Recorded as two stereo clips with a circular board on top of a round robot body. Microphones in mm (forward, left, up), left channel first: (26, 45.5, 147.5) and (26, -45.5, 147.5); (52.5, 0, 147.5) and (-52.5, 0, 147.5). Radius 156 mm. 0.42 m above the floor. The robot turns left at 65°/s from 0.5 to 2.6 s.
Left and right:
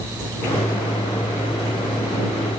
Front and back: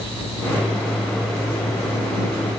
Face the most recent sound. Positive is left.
No sound to turn to.